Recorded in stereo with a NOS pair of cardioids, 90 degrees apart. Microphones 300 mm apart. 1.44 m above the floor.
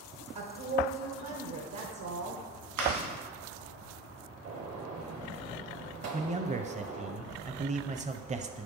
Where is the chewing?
70° right, 2.5 m.